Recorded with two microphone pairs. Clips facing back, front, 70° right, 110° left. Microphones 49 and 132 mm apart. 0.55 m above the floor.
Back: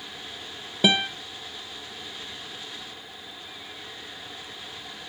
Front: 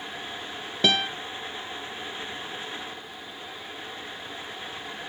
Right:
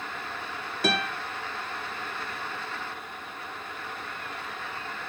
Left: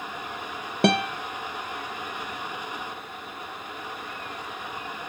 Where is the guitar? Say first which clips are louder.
Back 1 dB, left 6 dB; 100° left, 1.1 m.